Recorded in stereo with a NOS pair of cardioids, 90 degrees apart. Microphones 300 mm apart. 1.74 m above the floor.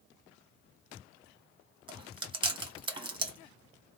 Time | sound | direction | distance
1.9 | chewing | 15° right | 1.8 m